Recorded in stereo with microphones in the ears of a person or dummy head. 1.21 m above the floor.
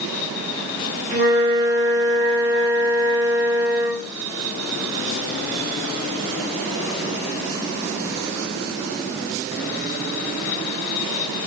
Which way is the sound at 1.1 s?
30° right (ahead or behind).